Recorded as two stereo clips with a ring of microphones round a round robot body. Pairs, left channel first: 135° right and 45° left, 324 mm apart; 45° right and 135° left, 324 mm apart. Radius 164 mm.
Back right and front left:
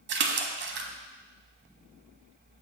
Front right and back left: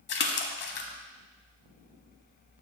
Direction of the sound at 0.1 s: Straight ahead.